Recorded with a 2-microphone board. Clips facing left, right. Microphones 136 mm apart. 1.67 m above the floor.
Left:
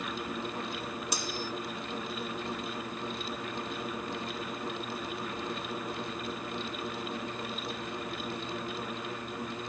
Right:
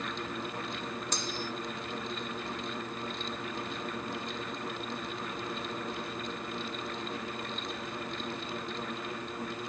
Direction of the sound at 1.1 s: 10° left (ahead or behind).